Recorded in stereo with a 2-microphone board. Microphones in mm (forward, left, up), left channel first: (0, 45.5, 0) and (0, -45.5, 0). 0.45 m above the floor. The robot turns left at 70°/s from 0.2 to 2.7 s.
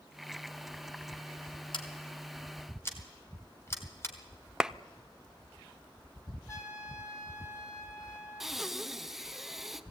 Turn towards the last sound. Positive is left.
turn(degrees=-5)  # may be behind; listen again after turning